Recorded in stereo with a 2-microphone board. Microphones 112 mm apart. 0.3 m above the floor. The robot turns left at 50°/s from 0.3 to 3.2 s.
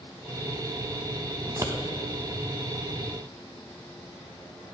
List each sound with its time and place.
1.5 s scissors: 35° right (ahead or behind), 0.5 m; by 1.7 s 20° right (ahead or behind), 0.5 m